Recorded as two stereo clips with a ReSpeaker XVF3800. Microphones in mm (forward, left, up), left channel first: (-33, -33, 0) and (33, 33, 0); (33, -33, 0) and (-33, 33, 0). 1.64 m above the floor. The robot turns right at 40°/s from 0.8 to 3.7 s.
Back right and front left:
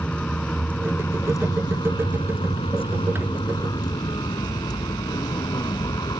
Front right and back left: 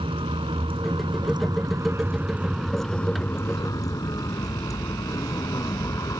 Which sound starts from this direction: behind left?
A vehicle, at 0.0 s.